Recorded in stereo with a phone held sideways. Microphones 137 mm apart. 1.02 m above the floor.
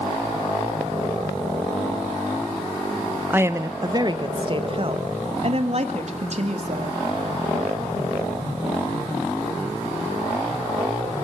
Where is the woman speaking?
15° right (ahead or behind), 0.9 m; by 7.0 s 55° right (ahead or behind), 2.5 m.